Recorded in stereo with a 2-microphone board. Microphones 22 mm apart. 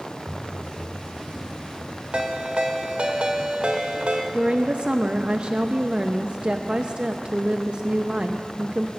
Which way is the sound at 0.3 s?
65° right (ahead or behind).